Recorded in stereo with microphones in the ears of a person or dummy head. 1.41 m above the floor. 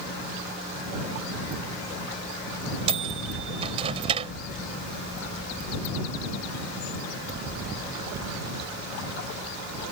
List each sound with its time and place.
2.9 s a microwave: 30° right (ahead or behind)